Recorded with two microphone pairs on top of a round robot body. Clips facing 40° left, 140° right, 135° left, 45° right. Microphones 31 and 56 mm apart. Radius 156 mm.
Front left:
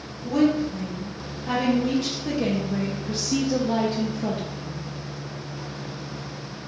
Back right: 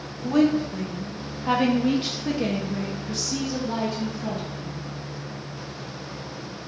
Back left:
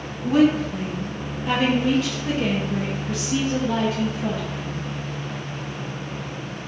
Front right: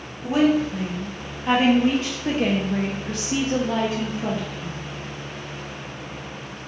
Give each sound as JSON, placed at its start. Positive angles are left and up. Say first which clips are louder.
{"t": 0.2, "sound": "a woman speaking", "louder": "back right 1 dB, back left 1 dB", "azimuth_deg": -120, "distance_m": 1.6}